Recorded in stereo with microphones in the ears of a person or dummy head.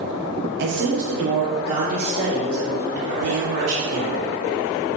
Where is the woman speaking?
50° right (ahead or behind), 0.7 m; by 4.2 s 75° right (ahead or behind), 2.5 m.